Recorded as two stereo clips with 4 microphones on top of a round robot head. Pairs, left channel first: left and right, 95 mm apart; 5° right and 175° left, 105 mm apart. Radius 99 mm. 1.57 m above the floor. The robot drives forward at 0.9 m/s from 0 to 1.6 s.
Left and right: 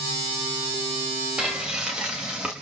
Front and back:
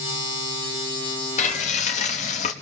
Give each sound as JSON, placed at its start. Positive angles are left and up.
{"t": 1.4, "sound": "frying", "azimuth_deg": -5, "distance_m": 1.6}